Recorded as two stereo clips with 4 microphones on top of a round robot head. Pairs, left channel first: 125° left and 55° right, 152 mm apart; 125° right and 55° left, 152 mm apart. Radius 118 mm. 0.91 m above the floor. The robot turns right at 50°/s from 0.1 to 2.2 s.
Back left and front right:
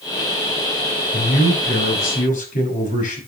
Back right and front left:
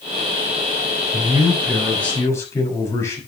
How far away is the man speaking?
About 6 m.